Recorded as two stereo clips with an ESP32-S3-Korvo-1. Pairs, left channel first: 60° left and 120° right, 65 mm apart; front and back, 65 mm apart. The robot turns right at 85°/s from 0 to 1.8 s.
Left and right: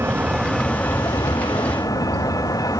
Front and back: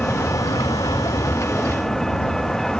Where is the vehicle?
70° right; by 2.8 s 85° left.